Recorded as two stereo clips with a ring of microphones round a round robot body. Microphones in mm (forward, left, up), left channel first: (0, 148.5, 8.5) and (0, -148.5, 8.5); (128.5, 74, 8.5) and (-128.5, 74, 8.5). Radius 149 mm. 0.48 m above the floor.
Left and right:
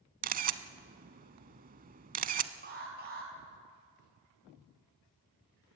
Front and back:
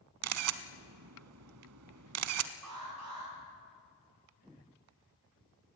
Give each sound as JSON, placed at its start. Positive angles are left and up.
{"t": 0.2, "sound": "a camera shutter", "azimuth_deg": -150, "distance_m": 0.6}
{"t": 2.6, "sound": "an alarm", "azimuth_deg": -145, "distance_m": 4.5}